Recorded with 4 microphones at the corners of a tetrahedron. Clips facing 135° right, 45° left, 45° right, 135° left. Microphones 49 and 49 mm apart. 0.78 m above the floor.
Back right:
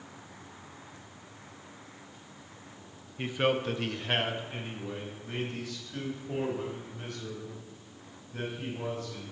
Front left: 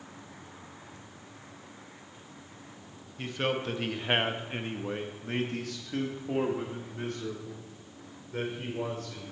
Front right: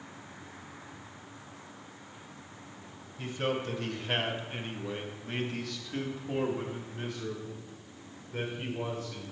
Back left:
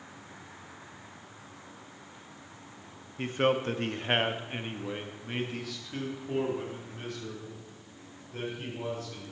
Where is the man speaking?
155° left, 0.8 m; by 9.2 s 30° left, 3 m.